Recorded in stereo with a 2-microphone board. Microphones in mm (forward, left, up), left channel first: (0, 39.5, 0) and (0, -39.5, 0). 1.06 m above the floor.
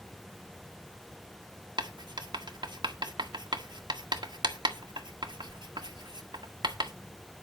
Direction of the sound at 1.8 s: 85° right.